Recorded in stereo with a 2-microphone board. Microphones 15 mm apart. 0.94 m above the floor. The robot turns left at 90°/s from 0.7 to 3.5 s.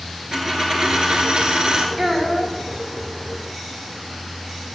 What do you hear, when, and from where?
0.3 s a dropped coin: 45° right, 2 m; by 1.9 s 150° right, 2 m
2.0 s a child speaking: straight behind, 2.5 m; by 2.5 s 130° left, 2.5 m